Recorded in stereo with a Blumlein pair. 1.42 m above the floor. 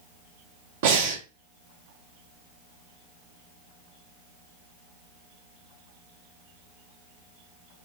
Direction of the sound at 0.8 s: 55° right.